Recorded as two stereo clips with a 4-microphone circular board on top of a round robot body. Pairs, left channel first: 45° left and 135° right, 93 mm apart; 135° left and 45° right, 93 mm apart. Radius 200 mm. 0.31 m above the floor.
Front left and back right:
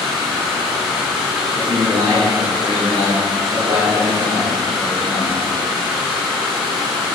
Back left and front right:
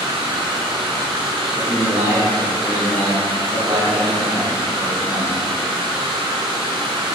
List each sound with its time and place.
0.0 s running water: 50° right, 1.2 m
1.6 s a man speaking: 100° right, 1.9 m